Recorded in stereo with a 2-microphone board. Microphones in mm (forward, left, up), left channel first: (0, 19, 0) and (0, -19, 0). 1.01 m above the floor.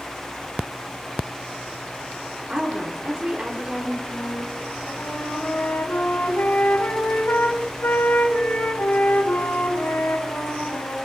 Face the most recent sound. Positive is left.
turn(degrees=60)  # may be behind; listen again after turning